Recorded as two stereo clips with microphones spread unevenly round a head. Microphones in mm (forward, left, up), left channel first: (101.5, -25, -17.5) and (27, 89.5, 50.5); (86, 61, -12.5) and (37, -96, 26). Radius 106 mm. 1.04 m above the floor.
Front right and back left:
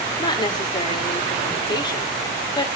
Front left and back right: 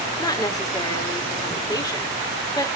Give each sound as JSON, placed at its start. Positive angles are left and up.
{"t": 0.2, "sound": "a woman speaking", "azimuth_deg": 5, "distance_m": 2.5}